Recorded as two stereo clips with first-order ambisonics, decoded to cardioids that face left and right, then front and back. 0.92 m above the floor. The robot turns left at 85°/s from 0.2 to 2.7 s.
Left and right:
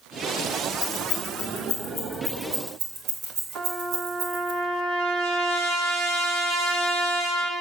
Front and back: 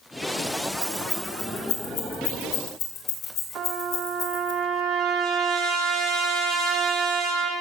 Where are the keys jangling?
115° left, 5 m; by 4.5 s 45° right, 5 m.